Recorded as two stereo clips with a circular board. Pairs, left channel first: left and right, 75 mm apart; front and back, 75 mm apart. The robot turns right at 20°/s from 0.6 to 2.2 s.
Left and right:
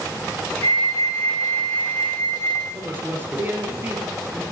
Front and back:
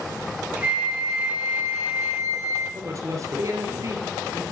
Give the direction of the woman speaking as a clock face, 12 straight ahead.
5 o'clock.